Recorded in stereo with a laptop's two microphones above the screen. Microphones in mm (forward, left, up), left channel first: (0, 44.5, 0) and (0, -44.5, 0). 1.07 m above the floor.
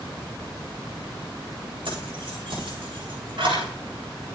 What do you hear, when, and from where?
1.9 s keys jangling: 85° right, 3.5 m; by 3.7 s 70° right (ahead or behind), 4 m